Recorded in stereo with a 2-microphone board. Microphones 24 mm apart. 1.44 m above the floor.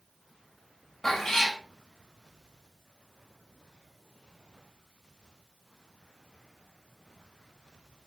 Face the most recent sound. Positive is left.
turn(degrees=10)  # may be behind; listen again after turning